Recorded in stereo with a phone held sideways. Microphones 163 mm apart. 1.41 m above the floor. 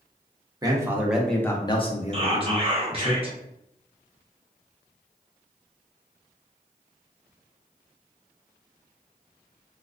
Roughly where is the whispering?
Right.